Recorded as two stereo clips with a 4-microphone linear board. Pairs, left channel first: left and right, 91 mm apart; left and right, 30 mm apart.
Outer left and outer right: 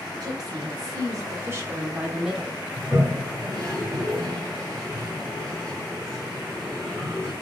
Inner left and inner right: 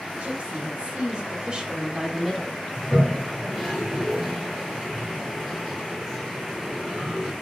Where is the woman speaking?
50° right (ahead or behind), 1.8 m; by 2.6 s centre (ahead or behind), 1.5 m.